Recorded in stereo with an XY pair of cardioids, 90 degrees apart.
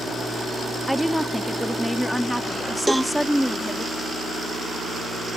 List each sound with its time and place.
0.9 s a woman speaking: straight ahead
2.9 s a cowbell: 10° right